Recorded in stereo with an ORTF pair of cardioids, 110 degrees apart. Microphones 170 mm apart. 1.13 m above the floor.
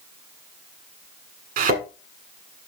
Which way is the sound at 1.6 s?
65° right.